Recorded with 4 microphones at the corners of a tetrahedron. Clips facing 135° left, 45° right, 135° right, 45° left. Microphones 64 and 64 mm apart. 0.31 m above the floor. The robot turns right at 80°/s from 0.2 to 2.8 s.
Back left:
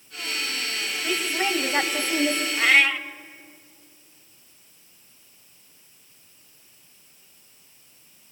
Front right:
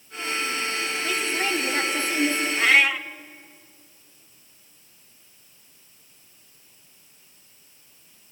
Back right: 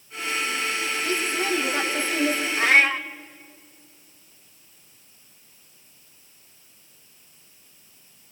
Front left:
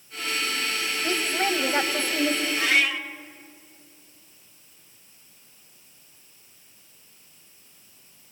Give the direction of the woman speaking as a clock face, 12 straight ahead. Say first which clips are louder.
Back left 2 dB, front left 2 dB; 11 o'clock.